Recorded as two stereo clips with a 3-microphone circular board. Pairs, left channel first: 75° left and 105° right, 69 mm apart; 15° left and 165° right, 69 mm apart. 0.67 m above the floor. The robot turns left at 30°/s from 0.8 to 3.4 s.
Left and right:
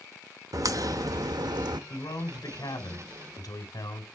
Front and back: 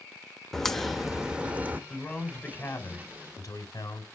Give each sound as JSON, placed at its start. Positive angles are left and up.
{"t": 0.5, "sound": "a crack", "azimuth_deg": -70, "distance_m": 0.7}
{"t": 1.9, "sound": "a man speaking", "azimuth_deg": 100, "distance_m": 2.5}